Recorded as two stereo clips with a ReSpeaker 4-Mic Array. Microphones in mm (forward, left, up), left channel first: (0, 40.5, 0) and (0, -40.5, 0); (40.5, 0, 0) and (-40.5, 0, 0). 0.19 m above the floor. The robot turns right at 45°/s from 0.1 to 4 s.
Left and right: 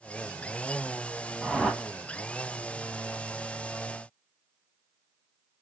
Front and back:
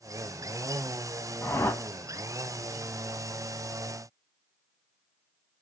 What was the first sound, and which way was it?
A whoosh, straight ahead.